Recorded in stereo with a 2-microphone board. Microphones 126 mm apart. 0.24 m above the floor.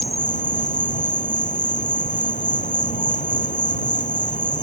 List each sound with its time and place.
0.0 s an insect: 70° left (ahead or behind)